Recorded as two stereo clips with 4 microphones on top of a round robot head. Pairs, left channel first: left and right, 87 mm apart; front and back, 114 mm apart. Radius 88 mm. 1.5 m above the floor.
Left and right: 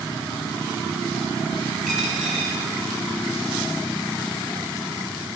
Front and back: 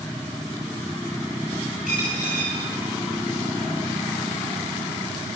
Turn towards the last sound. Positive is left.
turn(degrees=0)